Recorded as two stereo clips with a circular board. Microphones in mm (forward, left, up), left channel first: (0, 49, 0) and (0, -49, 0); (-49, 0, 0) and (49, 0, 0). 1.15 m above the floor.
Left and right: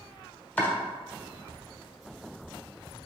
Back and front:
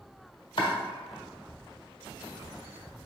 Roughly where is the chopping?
Behind.